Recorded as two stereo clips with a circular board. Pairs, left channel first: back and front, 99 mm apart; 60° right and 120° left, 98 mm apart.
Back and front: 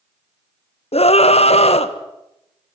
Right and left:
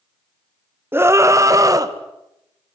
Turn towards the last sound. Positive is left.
turn(degrees=175)